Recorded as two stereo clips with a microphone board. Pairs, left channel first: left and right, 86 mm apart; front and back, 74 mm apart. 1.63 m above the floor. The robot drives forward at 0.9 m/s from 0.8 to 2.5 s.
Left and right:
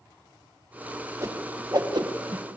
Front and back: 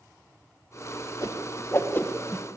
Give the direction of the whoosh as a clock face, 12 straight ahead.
1 o'clock.